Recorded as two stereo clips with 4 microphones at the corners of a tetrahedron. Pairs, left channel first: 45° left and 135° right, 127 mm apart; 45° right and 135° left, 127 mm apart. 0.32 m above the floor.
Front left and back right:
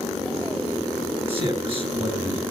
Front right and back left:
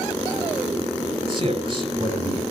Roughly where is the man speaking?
Behind.